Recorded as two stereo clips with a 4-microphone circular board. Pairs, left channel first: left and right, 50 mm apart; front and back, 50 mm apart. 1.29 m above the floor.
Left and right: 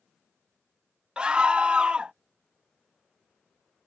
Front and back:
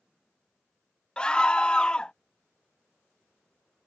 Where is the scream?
50° right.